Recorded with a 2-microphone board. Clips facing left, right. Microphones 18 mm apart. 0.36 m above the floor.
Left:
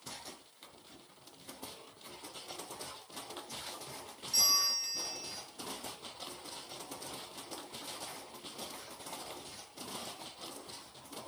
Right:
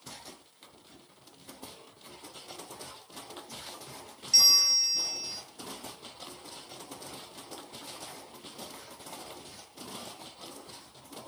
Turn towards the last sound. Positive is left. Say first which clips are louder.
# right 8 dB
turn(degrees=-50)  # may be behind; listen again after turning